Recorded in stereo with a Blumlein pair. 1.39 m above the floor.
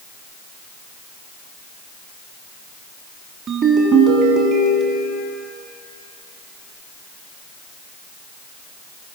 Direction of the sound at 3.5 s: 35° right.